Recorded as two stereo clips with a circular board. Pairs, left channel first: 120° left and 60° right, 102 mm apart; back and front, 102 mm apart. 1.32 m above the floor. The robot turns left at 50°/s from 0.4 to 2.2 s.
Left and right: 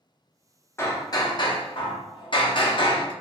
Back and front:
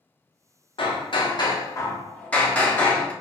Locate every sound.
0.8 s hammering: straight behind, 0.5 m; by 3.1 s 105° left, 0.5 m